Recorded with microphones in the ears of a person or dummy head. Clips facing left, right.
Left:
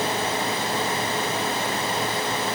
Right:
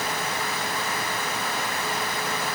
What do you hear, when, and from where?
Only background noise.